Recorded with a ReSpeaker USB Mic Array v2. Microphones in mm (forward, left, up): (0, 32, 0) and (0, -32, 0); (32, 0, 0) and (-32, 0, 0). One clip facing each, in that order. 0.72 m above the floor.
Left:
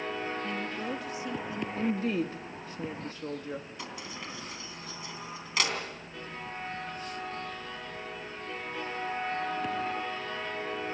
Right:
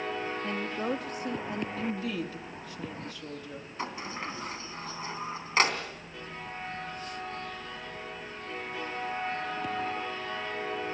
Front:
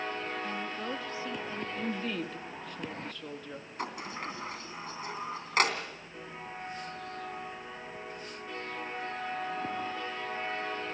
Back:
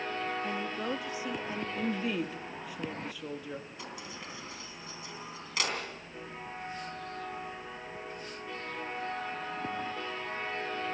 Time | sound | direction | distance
0.4 | a woman speaking | 110° right | 0.7 m
1.8 | a woman speaking | 105° left | 1.2 m
3.8 | a sliding door | 40° right | 3 m